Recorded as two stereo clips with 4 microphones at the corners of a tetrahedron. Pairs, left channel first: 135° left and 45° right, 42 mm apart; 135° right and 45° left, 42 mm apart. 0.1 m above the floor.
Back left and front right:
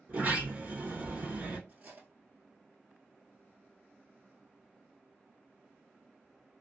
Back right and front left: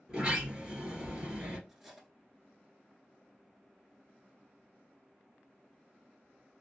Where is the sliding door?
20° right, 1.7 m.